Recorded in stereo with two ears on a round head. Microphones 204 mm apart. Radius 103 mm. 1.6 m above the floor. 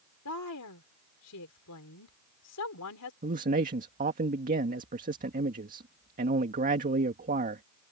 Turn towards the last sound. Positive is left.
turn(degrees=-40)  # may be behind; listen again after turning